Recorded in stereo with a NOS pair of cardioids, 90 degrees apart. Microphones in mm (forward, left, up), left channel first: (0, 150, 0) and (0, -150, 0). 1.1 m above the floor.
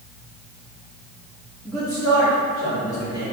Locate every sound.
1.6 s a man speaking: 5° right, 1.9 m; by 3.3 s 5° left, 3 m